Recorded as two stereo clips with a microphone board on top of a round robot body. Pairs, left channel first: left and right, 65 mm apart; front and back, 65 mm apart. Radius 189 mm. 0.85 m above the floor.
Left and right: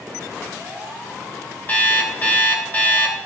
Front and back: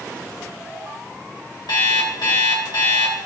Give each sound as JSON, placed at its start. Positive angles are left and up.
{"t": 1.7, "sound": "an alarm clock", "azimuth_deg": 25, "distance_m": 2.5}